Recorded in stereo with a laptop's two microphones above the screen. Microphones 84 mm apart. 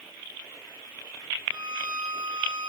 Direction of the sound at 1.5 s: 55° right (ahead or behind).